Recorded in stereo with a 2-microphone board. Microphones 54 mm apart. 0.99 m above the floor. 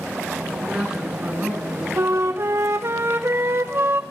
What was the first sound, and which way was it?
A man speaking, 25° right (ahead or behind).